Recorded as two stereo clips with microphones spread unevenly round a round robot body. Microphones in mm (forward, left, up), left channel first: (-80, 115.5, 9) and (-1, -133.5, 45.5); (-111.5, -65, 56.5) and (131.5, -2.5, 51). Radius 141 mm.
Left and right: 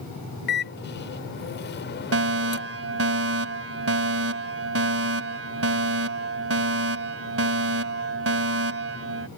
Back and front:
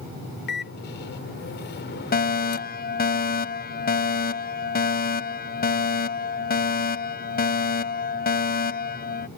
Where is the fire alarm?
110° right.